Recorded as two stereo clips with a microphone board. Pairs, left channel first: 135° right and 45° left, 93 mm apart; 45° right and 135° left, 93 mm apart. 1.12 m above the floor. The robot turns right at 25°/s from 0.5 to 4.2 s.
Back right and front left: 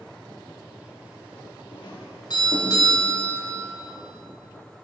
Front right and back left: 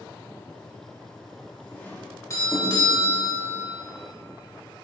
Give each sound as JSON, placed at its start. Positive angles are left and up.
{"t": 1.7, "sound": "a doorbell", "azimuth_deg": -115, "distance_m": 3.0}